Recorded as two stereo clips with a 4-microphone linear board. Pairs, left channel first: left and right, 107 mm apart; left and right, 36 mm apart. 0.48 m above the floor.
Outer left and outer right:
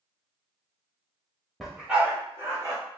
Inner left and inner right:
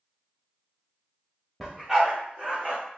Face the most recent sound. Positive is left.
turn(degrees=-30)  # may be behind; listen again after turning